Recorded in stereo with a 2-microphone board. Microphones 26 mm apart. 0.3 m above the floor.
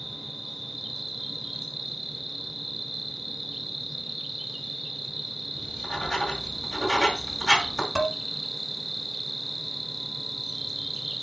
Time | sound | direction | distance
0.0 | an insect | centre (ahead or behind) | 1.6 m
5.5 | writing | 20° left (ahead or behind) | 2.0 m
8.0 | dishes clattering | 5° right (ahead or behind) | 1.7 m